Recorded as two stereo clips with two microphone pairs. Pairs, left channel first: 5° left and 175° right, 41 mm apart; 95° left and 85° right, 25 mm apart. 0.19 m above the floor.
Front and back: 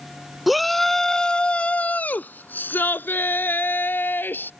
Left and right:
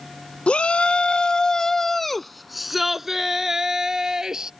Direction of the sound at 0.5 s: 95° left.